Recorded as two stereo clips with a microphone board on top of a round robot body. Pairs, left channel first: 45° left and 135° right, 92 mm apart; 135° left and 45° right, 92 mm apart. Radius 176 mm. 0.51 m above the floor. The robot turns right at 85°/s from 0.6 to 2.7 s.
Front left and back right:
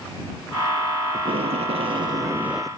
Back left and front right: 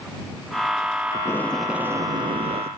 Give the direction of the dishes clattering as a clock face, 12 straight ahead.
I don't hear dishes clattering.